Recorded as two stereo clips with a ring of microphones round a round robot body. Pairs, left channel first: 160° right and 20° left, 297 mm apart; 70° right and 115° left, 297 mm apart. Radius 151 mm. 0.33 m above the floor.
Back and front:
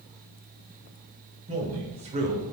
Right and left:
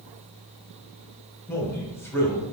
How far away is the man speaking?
About 0.9 m.